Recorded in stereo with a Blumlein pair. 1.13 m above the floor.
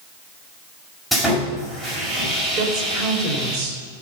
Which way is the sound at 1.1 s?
5° right.